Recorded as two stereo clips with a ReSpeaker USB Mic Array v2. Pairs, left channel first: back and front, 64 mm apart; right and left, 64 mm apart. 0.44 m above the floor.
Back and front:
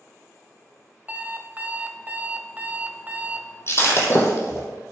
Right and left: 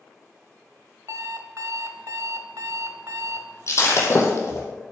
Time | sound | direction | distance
1.1 | an alarm clock | 65° left | 1.0 m
3.7 | breaking glass | 130° right | 2.5 m